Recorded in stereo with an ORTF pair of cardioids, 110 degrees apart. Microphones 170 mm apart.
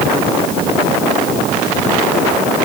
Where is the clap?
I don't hear a clap.